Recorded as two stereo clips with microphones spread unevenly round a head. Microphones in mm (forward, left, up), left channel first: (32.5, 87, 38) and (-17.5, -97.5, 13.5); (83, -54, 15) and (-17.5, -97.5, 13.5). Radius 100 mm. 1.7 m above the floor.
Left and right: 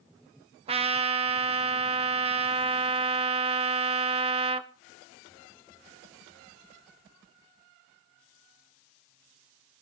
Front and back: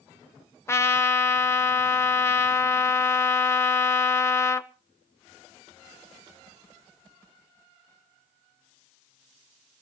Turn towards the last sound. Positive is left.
turn(degrees=-45)